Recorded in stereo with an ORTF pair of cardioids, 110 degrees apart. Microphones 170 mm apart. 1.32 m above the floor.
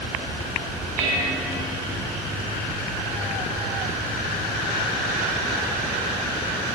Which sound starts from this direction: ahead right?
Dishes clattering, at 1.0 s.